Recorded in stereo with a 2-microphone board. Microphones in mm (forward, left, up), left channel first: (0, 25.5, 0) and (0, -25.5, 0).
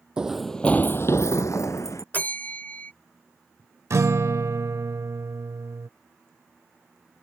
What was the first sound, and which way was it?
Running footsteps, 15° right (ahead or behind).